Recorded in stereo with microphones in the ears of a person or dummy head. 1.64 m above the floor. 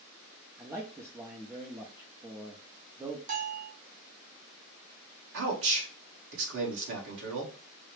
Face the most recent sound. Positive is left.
turn(degrees=-65)  # may be behind; listen again after turning